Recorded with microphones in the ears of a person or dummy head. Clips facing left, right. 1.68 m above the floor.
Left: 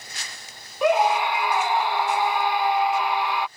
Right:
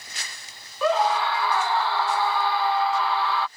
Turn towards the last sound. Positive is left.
turn(degrees=10)  # may be behind; listen again after turning